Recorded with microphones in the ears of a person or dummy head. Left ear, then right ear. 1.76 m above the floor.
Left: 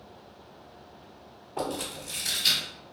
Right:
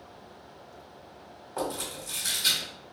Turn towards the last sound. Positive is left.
turn(degrees=-40)  # may be behind; listen again after turning